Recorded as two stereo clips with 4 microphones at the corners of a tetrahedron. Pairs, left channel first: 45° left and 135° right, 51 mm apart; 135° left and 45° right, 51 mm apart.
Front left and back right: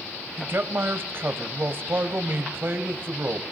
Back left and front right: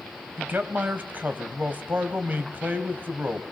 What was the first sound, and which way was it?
A man speaking, 95° right.